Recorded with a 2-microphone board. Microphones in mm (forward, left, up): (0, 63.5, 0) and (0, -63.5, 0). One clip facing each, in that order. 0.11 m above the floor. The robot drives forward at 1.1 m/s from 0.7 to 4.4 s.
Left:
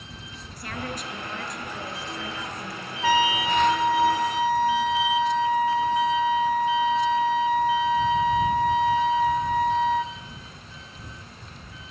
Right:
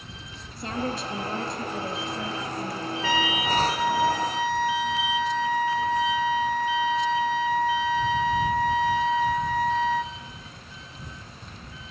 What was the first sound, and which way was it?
A woman speaking, 25° right (ahead or behind).